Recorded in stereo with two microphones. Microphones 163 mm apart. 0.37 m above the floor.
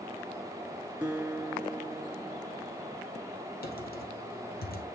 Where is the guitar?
10° right (ahead or behind), 2.5 m.